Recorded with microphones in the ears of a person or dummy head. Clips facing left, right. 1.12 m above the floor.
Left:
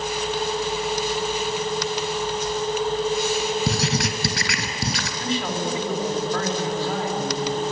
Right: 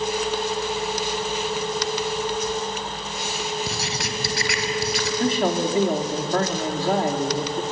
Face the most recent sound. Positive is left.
turn(degrees=-45)  # may be behind; listen again after turning